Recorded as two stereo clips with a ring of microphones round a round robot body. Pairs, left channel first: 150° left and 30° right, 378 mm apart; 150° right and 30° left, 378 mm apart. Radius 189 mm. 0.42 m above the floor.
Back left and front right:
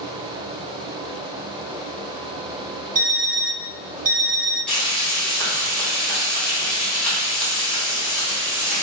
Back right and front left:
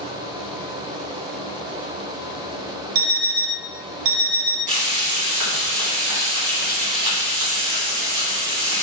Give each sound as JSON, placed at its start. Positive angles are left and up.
{"t": 3.0, "sound": "an alarm clock", "azimuth_deg": 35, "distance_m": 0.5}
{"t": 4.7, "sound": "frying", "azimuth_deg": 65, "distance_m": 1.6}